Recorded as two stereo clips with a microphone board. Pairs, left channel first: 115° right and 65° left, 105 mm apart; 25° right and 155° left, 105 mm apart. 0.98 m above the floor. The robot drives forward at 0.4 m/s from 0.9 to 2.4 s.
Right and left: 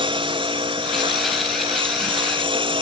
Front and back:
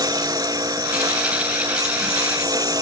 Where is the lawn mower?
105° left.